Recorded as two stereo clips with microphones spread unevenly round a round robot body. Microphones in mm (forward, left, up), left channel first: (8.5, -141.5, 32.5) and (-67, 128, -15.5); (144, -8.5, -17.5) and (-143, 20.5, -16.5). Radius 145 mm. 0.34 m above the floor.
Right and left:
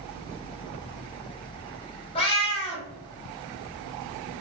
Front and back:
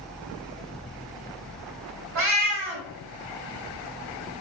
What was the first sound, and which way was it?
A cat meowing, 145° right.